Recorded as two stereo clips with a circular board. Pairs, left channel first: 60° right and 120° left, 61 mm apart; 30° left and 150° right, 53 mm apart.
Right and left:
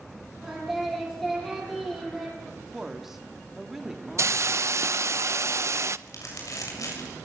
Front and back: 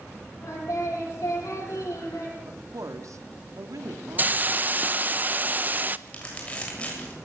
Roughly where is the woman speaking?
Behind.